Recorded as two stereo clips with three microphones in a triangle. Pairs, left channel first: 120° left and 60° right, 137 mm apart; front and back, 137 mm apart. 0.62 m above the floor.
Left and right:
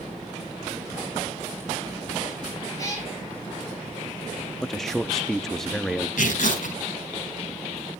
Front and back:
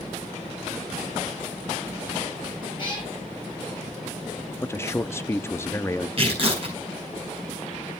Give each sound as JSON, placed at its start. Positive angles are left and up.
{"t": 2.8, "sound": "a cat meowing", "azimuth_deg": 55, "distance_m": 6.0}
{"t": 4.6, "sound": "a man speaking", "azimuth_deg": 35, "distance_m": 0.5}
{"t": 6.2, "sound": "tearing paper", "azimuth_deg": 135, "distance_m": 5.0}